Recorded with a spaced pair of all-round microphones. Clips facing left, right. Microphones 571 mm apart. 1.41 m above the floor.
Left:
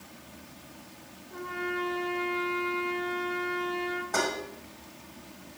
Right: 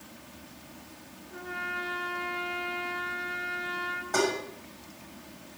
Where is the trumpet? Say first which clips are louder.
Left 7 dB; 5° right (ahead or behind), 6.5 m.